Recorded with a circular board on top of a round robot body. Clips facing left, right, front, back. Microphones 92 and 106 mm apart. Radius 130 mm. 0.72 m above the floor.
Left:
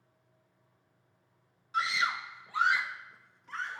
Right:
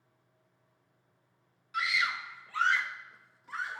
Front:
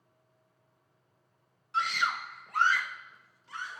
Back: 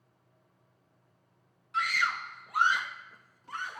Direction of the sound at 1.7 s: 45° left.